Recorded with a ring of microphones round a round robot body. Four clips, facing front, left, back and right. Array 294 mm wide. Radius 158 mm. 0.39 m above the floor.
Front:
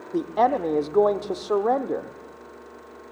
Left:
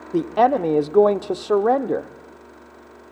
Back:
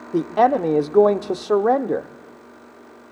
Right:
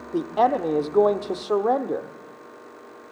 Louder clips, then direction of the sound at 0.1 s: Left 3 dB, back 4 dB; 140° left.